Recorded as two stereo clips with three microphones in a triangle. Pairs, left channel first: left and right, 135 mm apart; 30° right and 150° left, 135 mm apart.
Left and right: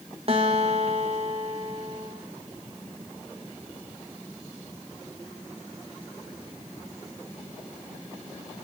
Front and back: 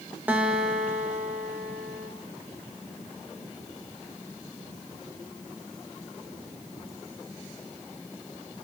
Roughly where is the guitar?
Behind right.